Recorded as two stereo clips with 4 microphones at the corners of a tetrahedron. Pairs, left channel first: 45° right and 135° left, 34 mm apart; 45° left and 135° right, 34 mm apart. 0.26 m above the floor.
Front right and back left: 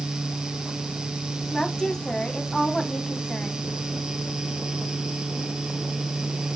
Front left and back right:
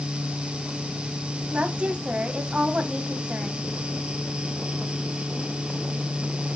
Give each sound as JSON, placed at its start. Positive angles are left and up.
{"t": 1.5, "sound": "a woman speaking", "azimuth_deg": -105, "distance_m": 2.0}